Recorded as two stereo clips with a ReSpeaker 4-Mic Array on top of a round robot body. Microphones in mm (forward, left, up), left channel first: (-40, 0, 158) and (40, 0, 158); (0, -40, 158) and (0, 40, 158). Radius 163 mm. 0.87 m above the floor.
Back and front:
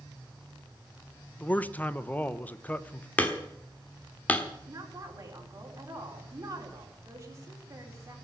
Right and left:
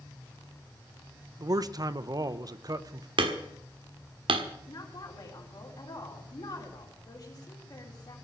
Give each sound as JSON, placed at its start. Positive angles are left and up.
{"t": 1.4, "sound": "a man speaking", "azimuth_deg": 115, "distance_m": 1.0}
{"t": 3.2, "sound": "hammering", "azimuth_deg": 110, "distance_m": 1.4}
{"t": 4.7, "sound": "a woman speaking", "azimuth_deg": -55, "distance_m": 4.0}